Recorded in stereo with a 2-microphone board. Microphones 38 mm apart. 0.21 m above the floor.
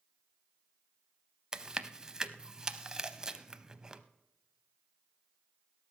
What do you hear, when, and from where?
1.5 s chewing: 15° right (ahead or behind), 0.6 m